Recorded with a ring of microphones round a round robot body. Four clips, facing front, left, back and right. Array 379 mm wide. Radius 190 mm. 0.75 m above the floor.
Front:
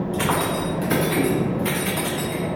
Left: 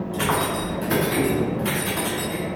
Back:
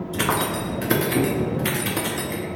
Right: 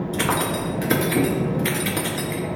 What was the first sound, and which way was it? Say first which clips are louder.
Keys jangling: left 1 dB, back 1 dB; 130° right.